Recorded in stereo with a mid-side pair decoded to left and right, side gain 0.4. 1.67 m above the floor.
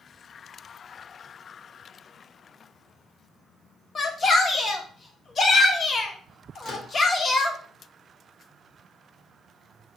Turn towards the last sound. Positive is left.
turn(degrees=60)